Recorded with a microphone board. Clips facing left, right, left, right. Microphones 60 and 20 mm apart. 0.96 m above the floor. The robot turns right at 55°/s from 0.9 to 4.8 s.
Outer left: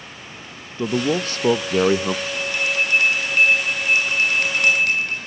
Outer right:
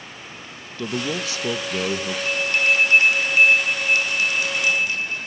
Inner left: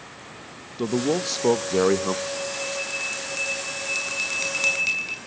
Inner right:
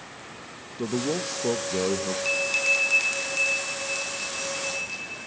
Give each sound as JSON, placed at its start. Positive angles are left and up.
{"t": 0.8, "sound": "a man speaking", "azimuth_deg": 25, "distance_m": 0.6}
{"t": 2.2, "sound": "a bell", "azimuth_deg": -70, "distance_m": 7.5}